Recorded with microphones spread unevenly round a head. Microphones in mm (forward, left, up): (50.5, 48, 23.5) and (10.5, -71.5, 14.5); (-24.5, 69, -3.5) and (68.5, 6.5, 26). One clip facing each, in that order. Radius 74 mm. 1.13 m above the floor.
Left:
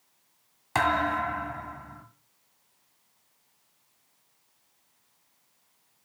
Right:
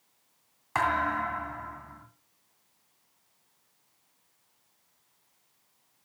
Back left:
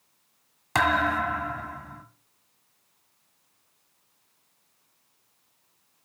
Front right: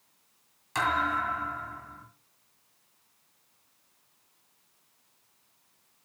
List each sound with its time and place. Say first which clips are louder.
0.8 s a thud: left 2 dB, back left 5 dB; 130° left, 1.9 m